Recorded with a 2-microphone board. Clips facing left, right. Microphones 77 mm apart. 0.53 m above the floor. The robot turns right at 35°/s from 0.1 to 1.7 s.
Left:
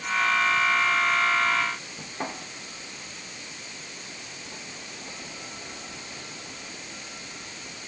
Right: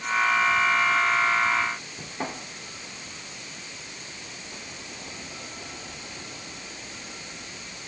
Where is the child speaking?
No child speaking in this recording.